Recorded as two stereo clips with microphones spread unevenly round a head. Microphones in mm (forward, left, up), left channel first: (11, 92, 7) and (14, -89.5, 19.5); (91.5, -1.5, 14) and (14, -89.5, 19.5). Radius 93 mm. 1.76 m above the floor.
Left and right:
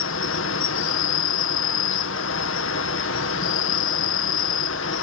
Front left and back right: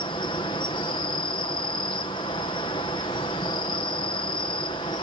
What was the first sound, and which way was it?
An insect, 115° left.